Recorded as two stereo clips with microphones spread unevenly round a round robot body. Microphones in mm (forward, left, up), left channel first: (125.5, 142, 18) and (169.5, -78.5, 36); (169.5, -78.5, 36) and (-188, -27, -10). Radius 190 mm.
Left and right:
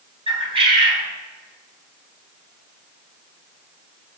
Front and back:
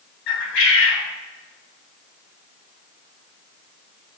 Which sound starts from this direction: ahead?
A bird, at 0.3 s.